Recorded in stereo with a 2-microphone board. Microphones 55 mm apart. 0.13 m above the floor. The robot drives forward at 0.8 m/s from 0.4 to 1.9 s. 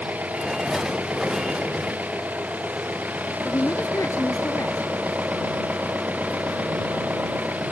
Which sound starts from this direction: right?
An engine running, at 0.0 s.